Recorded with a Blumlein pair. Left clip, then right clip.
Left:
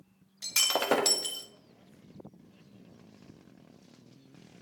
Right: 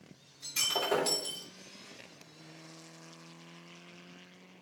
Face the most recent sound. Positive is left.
turn(degrees=35)